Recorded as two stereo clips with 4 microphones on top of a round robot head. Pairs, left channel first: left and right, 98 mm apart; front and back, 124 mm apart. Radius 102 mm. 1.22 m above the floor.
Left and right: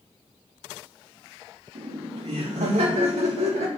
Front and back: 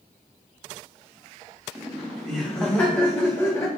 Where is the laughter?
90° right, 3 m; by 3.7 s 70° right, 2.5 m.